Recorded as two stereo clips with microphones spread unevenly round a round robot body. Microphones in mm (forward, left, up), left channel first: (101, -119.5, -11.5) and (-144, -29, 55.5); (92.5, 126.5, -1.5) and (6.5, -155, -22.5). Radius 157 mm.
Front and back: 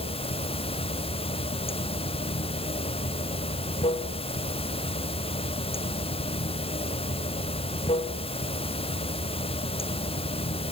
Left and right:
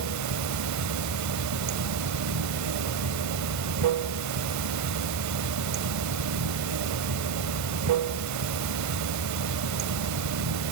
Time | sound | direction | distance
0.0 | running water | 85° right | 0.8 m